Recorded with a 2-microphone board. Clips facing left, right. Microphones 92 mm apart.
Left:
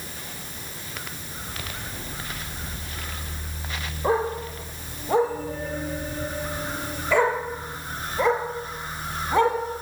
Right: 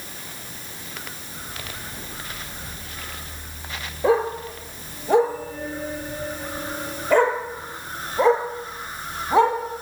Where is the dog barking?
85° right, 3 m; by 9.6 s 25° right (ahead or behind), 4 m.